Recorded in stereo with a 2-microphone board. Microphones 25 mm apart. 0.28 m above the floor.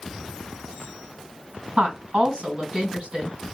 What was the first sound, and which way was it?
A woman speaking, 40° right (ahead or behind).